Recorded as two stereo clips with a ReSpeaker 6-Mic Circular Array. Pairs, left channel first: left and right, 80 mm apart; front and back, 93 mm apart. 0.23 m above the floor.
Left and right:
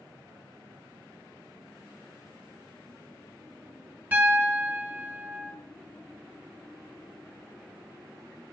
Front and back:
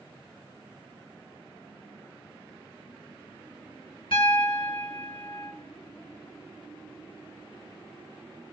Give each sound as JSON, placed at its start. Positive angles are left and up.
{"t": 4.1, "sound": "a piano", "azimuth_deg": -20, "distance_m": 1.3}